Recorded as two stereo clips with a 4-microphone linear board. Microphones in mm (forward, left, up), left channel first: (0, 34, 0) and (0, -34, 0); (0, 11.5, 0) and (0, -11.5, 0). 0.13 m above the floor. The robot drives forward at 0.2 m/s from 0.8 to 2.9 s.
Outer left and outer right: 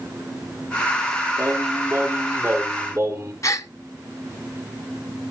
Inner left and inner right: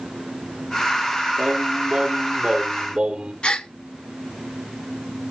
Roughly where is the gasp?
Left.